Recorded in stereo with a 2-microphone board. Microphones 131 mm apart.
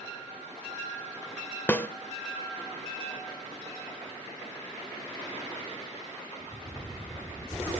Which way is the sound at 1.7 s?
15° left (ahead or behind).